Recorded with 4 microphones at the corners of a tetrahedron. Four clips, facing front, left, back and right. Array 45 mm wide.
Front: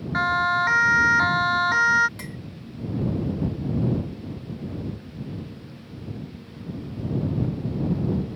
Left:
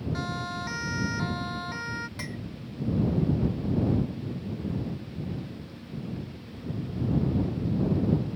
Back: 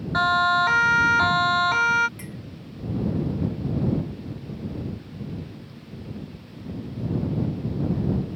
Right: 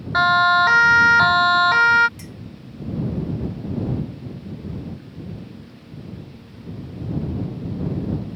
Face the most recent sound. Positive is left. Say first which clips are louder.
# left 3 dB, front 2 dB
turn(degrees=55)